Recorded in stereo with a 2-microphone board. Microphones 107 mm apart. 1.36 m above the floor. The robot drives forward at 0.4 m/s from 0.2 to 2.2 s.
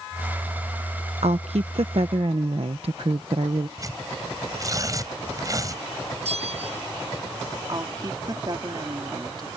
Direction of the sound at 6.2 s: 75° right (ahead or behind).